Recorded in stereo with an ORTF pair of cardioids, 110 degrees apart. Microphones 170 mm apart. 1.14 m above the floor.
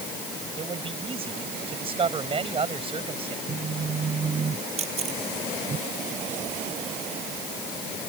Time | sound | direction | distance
0.6 | a man speaking | 35° right | ?
3.5 | a phone buzzing | 35° right | ?
4.8 | a camera shutter | 40° right | ?